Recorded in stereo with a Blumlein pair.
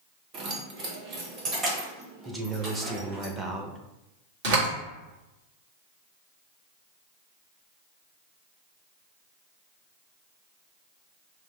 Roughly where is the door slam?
Ahead right.